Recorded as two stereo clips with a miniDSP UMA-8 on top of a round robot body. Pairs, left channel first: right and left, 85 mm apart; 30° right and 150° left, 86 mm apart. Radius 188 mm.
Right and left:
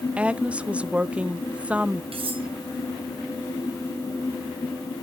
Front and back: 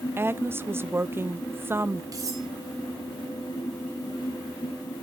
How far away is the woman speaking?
About 0.7 m.